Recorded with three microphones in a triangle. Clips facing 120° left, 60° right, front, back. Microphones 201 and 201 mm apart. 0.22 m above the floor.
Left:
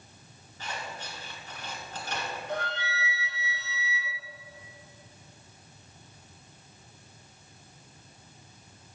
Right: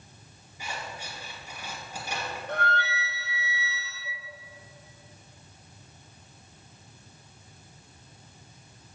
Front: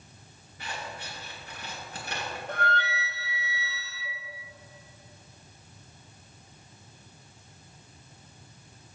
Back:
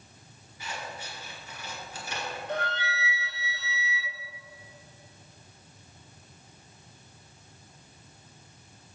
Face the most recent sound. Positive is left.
turn(degrees=-35)